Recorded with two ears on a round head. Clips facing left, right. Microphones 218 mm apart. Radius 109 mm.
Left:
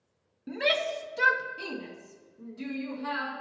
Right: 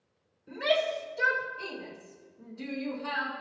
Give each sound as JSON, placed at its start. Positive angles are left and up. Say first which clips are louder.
{"t": 0.5, "sound": "a shout", "louder": "right 1 dB", "side_deg": 70, "distance_m": 1.6}